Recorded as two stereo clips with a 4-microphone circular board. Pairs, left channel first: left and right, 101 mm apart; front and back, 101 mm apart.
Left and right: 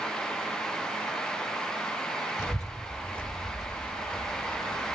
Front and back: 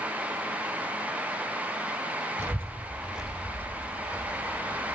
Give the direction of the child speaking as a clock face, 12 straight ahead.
8 o'clock.